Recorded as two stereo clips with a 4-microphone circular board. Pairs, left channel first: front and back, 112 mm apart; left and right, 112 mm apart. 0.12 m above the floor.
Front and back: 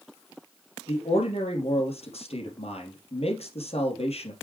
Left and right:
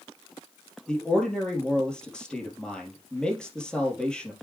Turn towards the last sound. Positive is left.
turn(degrees=10)